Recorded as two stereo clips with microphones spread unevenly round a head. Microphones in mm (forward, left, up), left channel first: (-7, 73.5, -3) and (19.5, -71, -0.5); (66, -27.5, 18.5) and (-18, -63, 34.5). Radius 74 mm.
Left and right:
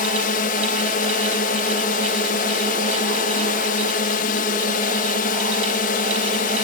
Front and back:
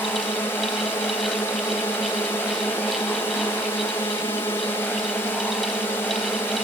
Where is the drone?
85° left.